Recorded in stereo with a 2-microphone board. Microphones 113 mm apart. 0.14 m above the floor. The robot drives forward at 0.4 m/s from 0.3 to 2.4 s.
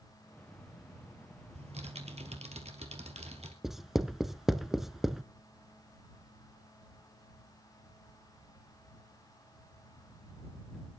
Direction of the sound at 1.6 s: 65° right (ahead or behind).